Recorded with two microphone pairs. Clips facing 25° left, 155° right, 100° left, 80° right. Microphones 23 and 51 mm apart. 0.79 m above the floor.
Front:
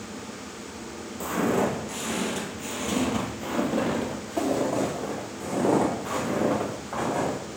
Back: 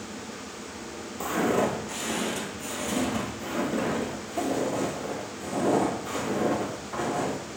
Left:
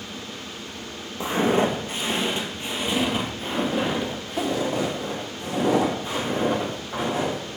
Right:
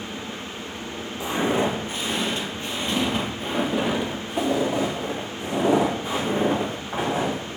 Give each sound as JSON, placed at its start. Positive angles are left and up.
{"t": 1.2, "sound": "footsteps", "azimuth_deg": 140, "distance_m": 1.0}